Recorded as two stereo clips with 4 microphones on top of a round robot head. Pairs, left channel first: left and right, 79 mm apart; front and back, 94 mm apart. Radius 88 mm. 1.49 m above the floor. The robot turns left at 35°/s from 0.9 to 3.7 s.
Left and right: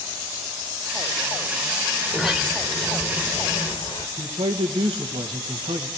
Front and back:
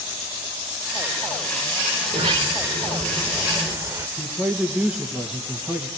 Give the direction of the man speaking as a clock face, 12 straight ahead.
3 o'clock.